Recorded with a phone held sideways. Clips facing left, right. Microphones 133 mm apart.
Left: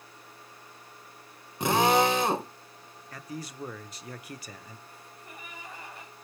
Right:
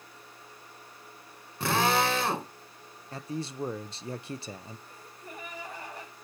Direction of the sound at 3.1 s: 25° right (ahead or behind).